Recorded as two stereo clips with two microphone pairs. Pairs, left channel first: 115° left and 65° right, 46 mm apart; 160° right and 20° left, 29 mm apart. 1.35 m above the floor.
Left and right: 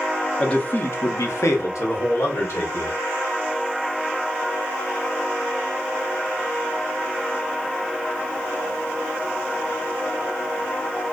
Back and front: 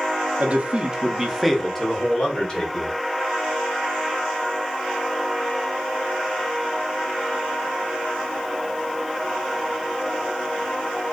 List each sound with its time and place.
0.4 s a man speaking: 45° left, 0.5 m; by 2.9 s 140° left, 1.4 m